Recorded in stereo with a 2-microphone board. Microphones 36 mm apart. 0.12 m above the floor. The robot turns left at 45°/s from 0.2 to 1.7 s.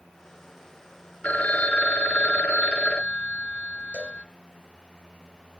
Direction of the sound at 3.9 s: 40° right (ahead or behind).